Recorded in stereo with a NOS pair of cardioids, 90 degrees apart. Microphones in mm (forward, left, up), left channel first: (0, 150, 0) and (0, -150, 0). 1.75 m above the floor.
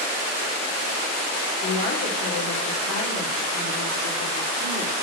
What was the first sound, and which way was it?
A woman speaking, 55° left.